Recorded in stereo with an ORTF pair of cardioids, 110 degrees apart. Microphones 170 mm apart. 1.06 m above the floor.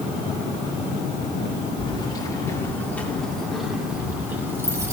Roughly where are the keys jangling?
Ahead left.